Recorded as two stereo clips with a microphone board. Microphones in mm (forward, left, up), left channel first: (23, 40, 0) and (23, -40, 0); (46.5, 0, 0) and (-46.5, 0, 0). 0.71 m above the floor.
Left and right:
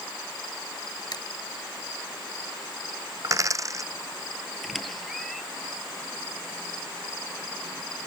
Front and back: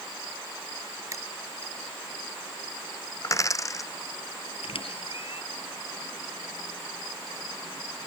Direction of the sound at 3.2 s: 50° right.